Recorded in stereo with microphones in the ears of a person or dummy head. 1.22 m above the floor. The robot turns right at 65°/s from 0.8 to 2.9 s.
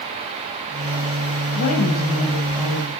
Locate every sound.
1.6 s a woman speaking: 110° left, 5 m; by 2.9 s 160° right, 5 m